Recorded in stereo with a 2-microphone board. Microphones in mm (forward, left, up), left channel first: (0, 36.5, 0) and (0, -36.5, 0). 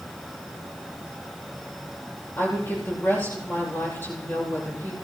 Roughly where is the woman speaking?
Left.